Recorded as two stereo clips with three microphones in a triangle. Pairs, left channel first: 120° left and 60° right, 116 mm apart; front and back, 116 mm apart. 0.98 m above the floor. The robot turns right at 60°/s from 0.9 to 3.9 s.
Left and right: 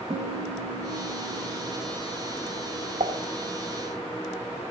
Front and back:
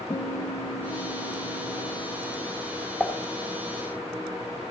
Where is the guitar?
45° right, 4 m; by 3.0 s 80° left, 4 m.